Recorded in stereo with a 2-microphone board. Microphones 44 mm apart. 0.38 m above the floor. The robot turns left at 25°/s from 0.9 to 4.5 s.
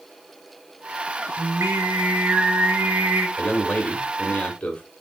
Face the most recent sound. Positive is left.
turn(degrees=30)  # may be behind; listen again after turning